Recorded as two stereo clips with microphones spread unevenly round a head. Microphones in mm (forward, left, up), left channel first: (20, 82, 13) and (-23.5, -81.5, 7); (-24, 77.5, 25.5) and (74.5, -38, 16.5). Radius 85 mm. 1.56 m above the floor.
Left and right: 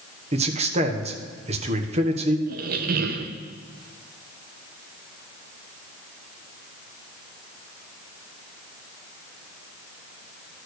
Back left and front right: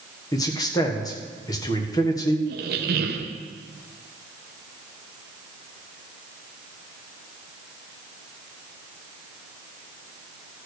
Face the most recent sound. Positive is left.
turn(degrees=-75)